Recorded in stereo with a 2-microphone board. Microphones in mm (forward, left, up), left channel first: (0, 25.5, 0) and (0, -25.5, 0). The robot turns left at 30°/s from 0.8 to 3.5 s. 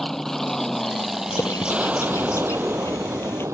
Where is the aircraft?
5° left (ahead or behind); by 3.5 s 70° right (ahead or behind).